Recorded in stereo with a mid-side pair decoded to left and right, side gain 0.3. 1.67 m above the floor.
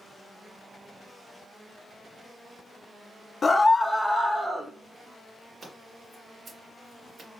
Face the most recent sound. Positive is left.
turn(degrees=-50)